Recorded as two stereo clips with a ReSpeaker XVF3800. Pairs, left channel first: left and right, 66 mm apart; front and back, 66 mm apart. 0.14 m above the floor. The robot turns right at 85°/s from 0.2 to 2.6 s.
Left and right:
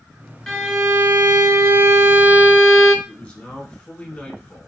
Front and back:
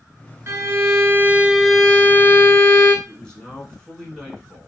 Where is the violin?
165° left, 0.7 m; by 3.0 s 10° right, 0.7 m.